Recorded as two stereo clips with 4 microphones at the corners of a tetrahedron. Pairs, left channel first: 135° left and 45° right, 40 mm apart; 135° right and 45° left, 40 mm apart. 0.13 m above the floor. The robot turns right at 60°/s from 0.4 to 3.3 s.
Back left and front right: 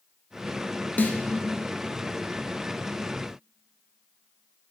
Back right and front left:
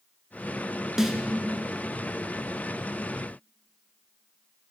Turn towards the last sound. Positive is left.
turn(degrees=-105)